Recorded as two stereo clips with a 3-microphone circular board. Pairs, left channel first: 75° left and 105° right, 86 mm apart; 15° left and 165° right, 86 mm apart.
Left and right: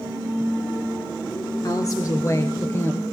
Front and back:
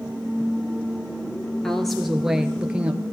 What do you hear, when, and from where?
1.6 s a woman speaking: 100° left, 1.8 m; by 3.0 s 130° left, 1.9 m